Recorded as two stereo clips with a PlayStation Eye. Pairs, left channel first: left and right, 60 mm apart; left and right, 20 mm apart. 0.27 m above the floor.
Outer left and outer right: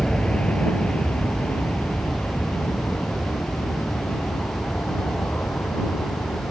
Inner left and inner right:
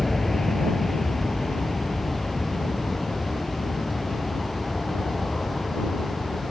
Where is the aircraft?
15° left (ahead or behind); by 6.5 s 30° left (ahead or behind).